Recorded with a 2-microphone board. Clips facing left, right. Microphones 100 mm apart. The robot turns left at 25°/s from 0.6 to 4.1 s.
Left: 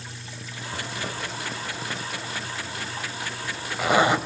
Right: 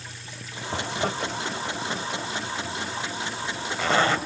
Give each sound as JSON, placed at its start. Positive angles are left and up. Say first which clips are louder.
{"t": 0.7, "sound": "a zipper", "louder": "right 6 dB", "side_deg": -60, "distance_m": 0.9}